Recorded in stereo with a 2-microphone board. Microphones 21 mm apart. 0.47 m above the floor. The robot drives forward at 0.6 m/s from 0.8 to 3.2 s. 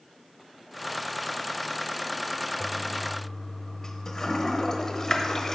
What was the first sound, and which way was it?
A toilet flushing, 40° left (ahead or behind).